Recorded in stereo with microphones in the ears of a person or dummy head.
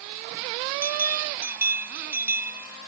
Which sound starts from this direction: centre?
A bell, at 0.8 s.